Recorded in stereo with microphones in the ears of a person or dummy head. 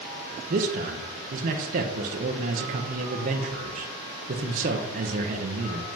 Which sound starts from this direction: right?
A man speaking, at 0.5 s.